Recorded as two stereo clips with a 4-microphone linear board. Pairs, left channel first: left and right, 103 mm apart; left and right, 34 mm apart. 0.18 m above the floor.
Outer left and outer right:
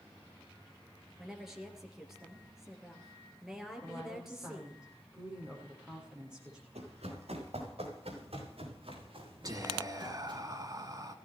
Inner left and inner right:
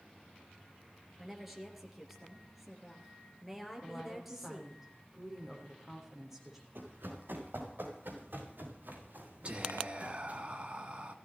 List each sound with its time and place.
1.2 s a woman speaking: 5° right (ahead or behind), 3.5 m
3.8 s a woman speaking: 10° right (ahead or behind), 7 m
6.8 s running footsteps: 85° right, 8.5 m; by 10.4 s 45° right (ahead or behind), 7.5 m
9.4 s whispering: 35° right (ahead or behind), 2 m